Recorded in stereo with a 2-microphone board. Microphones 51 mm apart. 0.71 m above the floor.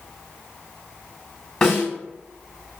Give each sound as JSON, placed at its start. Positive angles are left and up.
{"t": 1.6, "sound": "a snare drum", "side_deg": 20, "distance_m": 1.5}